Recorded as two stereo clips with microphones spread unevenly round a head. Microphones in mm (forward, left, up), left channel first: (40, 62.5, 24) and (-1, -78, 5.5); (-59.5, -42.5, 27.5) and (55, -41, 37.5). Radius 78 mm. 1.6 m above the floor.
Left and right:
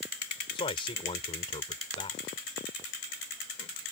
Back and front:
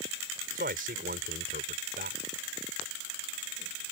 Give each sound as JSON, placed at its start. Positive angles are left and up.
{"t": 0.6, "sound": "a man speaking", "azimuth_deg": 20}